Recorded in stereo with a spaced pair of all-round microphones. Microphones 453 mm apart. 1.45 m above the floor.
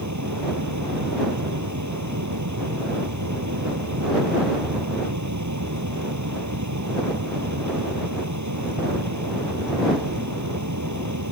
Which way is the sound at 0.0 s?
40° right (ahead or behind).